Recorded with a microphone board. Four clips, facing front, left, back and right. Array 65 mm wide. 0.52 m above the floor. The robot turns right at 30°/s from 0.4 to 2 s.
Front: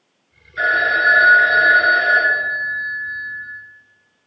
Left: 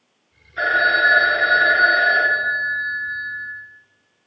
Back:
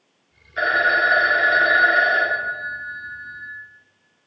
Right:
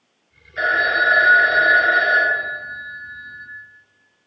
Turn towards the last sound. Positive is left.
turn(degrees=-115)